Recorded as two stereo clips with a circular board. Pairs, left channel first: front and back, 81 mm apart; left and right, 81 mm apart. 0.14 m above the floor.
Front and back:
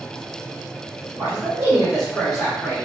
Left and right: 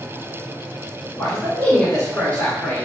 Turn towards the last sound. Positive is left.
turn(degrees=60)